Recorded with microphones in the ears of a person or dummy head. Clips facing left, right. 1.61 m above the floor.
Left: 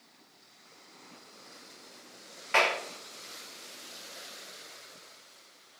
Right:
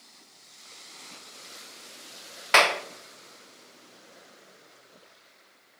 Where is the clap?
70° right (ahead or behind), 0.8 m.